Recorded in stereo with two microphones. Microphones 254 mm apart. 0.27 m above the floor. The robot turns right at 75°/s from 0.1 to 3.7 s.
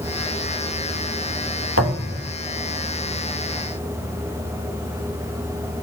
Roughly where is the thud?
Ahead right.